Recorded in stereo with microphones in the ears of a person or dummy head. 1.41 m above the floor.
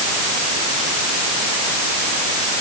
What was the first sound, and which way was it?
Only background noise.